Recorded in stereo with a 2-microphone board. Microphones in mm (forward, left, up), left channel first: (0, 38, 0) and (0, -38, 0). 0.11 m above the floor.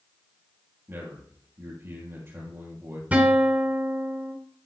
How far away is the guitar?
About 1.4 m.